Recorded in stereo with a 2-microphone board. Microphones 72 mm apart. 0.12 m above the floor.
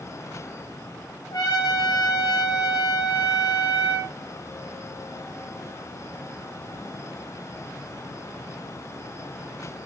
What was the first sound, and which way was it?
A trumpet, 60° left (ahead or behind).